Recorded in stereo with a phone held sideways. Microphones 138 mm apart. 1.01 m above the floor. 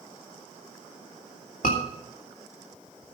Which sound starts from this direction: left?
A scream, at 1.6 s.